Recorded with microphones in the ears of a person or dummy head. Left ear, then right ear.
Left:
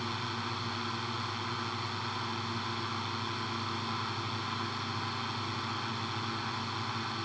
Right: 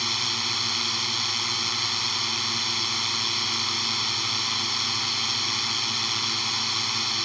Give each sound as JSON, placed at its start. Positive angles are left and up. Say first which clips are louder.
{"t": 0.0, "sound": "a drone", "louder": "right 11 dB", "side_deg": -75}